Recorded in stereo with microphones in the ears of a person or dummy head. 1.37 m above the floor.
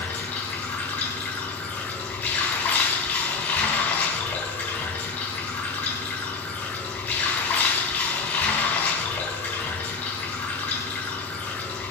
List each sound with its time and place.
0.0 s running water: 10° left (ahead or behind), 3 m